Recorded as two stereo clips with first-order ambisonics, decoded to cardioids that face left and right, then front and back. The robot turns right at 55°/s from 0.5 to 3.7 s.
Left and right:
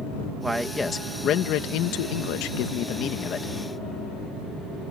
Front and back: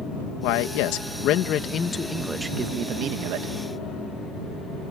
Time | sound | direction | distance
0.4 | a man speaking | 5° right | ?